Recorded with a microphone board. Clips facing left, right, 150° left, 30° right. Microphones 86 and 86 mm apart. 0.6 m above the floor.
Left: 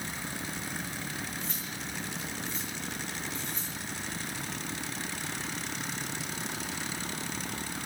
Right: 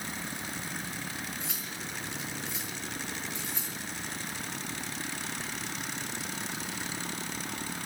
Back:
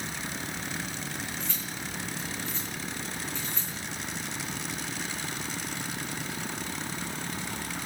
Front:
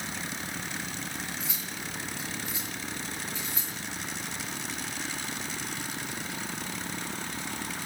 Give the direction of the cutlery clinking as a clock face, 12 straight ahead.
4 o'clock.